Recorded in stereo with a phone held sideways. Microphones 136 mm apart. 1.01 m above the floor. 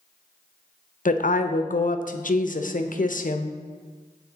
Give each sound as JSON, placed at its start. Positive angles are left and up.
{"t": 1.1, "sound": "a woman speaking", "side_deg": 80, "distance_m": 0.6}